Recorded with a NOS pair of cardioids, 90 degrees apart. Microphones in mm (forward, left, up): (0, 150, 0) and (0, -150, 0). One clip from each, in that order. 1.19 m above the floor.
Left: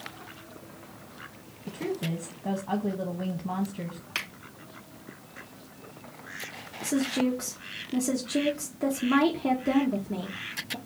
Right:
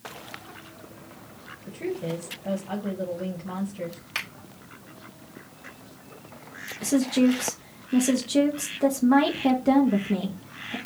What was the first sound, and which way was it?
A woman speaking, 25° left.